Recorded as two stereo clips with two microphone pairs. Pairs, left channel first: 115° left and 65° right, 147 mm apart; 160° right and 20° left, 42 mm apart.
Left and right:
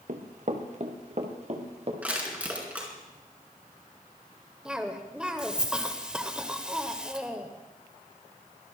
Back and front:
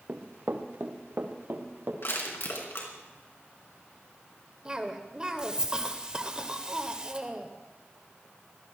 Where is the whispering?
No whispering in this recording.